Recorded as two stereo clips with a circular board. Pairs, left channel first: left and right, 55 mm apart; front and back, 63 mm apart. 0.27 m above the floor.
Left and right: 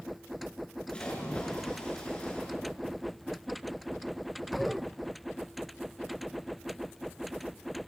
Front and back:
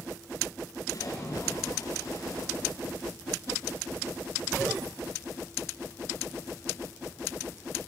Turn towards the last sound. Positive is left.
turn(degrees=20)